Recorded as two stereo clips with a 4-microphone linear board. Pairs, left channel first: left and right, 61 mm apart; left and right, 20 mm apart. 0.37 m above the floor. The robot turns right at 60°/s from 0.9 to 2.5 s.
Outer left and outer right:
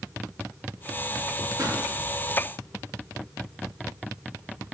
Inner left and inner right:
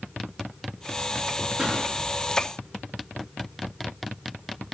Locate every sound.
1.6 s a pop: 60° right (ahead or behind), 5.5 m; by 1.8 s 75° right (ahead or behind), 5.5 m